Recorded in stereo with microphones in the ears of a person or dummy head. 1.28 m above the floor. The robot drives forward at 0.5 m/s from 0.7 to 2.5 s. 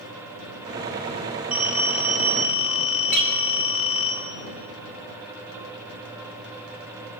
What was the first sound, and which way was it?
A phone ringing, 5° right (ahead or behind).